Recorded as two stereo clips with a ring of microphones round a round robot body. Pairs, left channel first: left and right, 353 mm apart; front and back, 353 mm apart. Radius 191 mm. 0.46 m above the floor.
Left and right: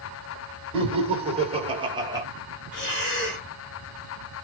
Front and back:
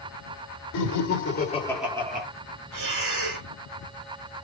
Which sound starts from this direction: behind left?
Breathing, at 2.7 s.